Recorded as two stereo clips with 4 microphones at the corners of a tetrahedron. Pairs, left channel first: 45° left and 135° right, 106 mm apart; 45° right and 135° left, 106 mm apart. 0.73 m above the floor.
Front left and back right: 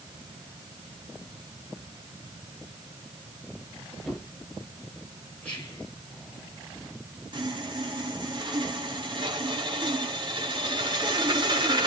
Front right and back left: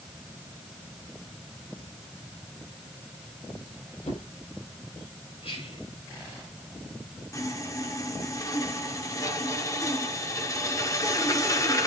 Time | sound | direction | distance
4.1 | a drawer | 45° right | 9 m
5.4 | whispering | 30° right | 3 m
7.3 | sawing | 100° right | 2 m